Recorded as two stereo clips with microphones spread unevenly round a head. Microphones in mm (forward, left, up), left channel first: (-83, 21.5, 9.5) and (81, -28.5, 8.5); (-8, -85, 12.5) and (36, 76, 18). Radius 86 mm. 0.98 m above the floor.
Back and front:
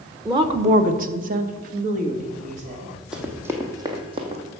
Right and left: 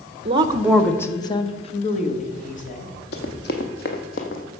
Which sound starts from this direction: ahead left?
A woman speaking, at 0.2 s.